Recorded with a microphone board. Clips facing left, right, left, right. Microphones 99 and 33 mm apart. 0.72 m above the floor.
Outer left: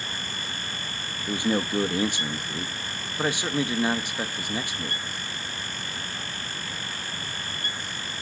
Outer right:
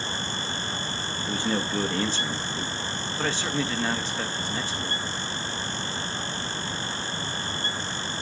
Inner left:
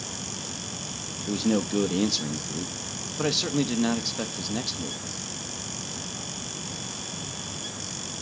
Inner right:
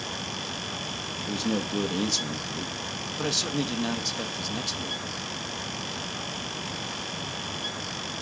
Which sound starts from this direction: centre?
A man speaking, at 1.3 s.